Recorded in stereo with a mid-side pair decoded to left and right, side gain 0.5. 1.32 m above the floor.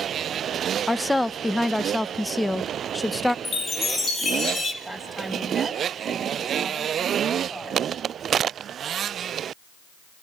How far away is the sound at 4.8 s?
About 10 m.